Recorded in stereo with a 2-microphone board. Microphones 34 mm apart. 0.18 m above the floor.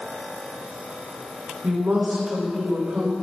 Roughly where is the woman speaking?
Right.